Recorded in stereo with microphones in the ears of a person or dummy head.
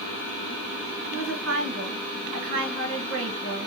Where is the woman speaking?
65° right (ahead or behind), 1.5 m.